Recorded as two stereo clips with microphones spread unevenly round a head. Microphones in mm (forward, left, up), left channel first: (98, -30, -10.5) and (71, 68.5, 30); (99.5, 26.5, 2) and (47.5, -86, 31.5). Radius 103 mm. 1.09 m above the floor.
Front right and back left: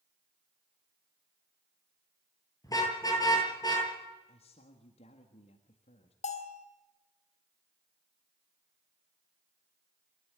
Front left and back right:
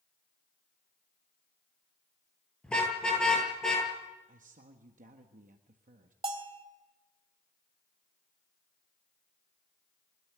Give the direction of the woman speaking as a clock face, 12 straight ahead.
3 o'clock.